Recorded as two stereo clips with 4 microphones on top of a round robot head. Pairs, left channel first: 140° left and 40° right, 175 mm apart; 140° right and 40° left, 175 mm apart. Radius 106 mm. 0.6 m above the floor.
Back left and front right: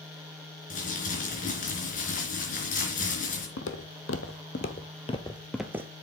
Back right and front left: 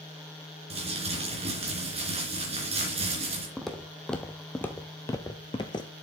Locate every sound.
0.7 s crumpling: 95° left, 3.5 m
3.6 s footsteps: 130° left, 1.1 m; by 5.9 s 95° right, 0.6 m